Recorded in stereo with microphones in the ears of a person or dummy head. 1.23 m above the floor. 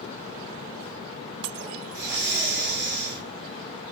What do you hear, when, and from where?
1.9 s breathing: 15° right (ahead or behind), 1.7 m